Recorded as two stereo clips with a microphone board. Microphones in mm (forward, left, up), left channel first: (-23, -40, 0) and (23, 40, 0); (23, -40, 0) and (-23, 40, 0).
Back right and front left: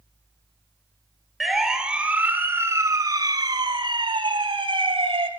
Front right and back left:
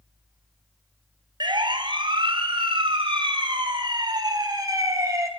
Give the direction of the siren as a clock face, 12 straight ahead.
7 o'clock.